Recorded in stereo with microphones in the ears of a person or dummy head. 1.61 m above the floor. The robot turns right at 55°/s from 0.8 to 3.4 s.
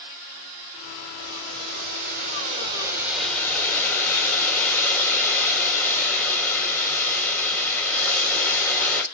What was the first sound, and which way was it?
Boiling, 115° right.